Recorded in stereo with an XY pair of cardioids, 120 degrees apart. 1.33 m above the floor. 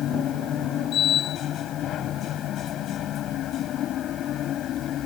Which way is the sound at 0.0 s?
60° left.